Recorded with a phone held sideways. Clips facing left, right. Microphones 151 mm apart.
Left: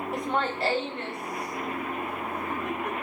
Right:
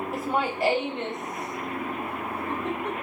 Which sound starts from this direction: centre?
Laughter, at 0.1 s.